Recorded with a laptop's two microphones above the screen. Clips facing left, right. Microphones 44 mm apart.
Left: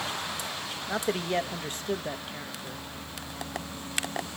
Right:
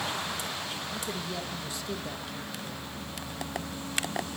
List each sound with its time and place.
0.9 s a man speaking: 60° left (ahead or behind), 1.1 m; by 2.9 s 15° left (ahead or behind), 1.1 m